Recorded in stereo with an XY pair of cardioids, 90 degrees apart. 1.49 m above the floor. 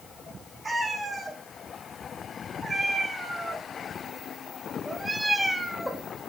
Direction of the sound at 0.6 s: 25° right.